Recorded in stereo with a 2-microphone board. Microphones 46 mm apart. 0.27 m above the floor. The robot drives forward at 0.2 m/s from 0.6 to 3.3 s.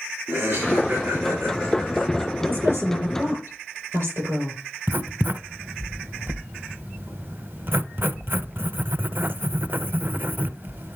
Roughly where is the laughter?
Right.